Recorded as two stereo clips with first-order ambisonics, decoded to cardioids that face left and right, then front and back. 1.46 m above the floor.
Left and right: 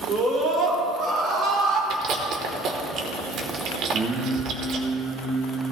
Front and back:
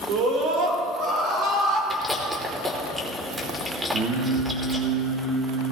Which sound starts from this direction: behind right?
Singing, at 3.9 s.